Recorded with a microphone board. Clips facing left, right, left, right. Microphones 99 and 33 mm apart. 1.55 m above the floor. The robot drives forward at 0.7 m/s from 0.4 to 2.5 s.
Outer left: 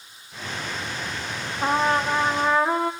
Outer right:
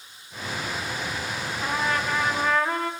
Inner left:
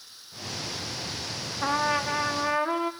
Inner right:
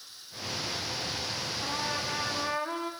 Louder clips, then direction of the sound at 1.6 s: Outer left 6 dB, inner left 10 dB; 45° left (ahead or behind).